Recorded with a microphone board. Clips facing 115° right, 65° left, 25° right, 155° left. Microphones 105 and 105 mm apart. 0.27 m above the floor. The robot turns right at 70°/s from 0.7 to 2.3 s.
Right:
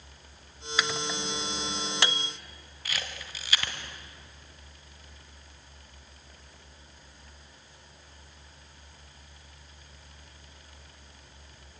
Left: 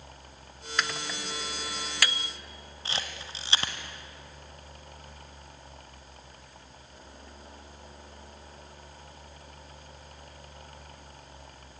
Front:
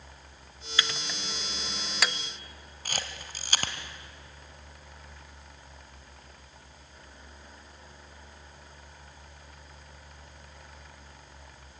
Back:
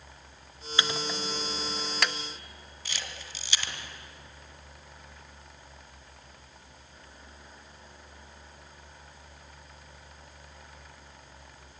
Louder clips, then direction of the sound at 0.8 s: Right 2 dB, back 3 dB; 165° left.